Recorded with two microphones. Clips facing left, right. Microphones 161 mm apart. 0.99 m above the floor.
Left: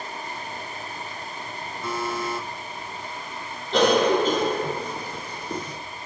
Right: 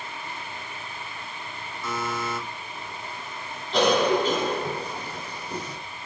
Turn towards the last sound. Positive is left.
turn(degrees=55)  # may be behind; listen again after turning